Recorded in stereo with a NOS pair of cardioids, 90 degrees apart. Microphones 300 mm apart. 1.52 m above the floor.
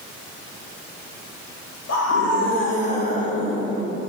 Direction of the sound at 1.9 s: 60° left.